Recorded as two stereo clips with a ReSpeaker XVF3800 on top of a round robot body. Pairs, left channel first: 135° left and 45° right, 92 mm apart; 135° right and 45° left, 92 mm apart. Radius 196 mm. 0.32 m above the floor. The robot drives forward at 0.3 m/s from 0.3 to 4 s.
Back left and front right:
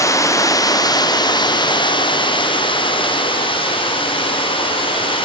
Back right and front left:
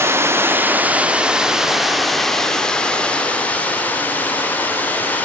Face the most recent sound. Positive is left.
turn(degrees=155)